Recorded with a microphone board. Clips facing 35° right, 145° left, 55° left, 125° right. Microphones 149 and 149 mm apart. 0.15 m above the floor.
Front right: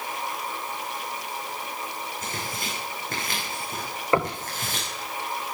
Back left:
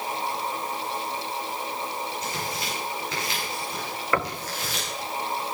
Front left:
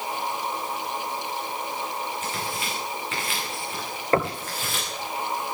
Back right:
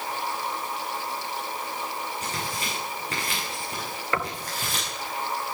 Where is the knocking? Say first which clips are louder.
Front right 4 dB, front left 7 dB; 20° left, 1.3 m.